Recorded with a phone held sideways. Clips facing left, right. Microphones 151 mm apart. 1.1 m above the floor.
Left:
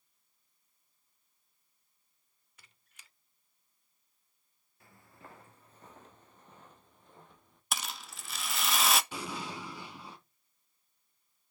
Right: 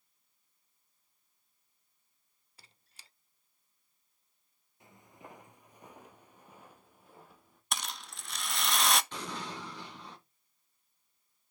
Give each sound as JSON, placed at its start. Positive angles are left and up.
{"t": 2.6, "sound": "a squeak", "side_deg": -35, "distance_m": 0.8}
{"t": 4.8, "sound": "footsteps", "side_deg": -20, "distance_m": 1.3}
{"t": 7.7, "sound": "a rattle", "side_deg": 5, "distance_m": 0.7}
{"t": 9.1, "sound": "an explosion", "side_deg": 10, "distance_m": 3.0}